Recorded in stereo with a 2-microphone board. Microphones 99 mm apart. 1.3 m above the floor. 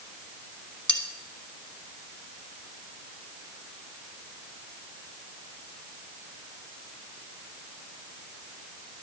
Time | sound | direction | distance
0.9 | cutlery clinking | 15° left (ahead or behind) | 1.3 m